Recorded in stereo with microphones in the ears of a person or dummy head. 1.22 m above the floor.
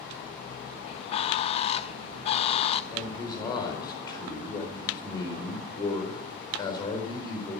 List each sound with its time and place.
0.9 s a bird: 35° left (ahead or behind), 0.7 m
2.9 s a man speaking: 25° left (ahead or behind), 4 m